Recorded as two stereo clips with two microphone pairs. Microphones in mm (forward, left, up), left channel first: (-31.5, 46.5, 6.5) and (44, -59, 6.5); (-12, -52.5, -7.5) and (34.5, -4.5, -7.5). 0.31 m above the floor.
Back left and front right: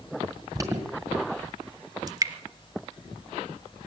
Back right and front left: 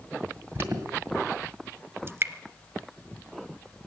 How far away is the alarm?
About 2.0 m.